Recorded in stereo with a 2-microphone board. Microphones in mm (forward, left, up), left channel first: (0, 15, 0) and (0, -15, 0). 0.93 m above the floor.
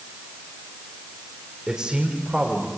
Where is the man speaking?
20° right (ahead or behind), 4 m; by 2.7 s 25° right (ahead or behind), 4.5 m.